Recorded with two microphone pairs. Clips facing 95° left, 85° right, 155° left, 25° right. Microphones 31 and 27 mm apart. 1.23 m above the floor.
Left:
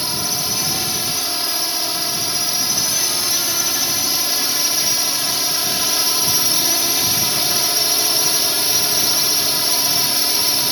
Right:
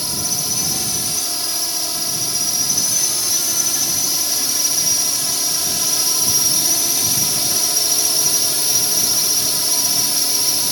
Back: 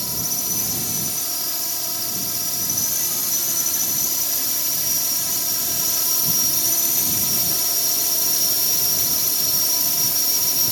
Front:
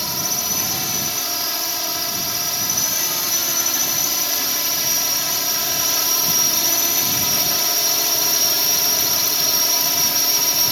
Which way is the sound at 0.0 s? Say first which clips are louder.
Left 2 dB, front 4 dB; 35° left.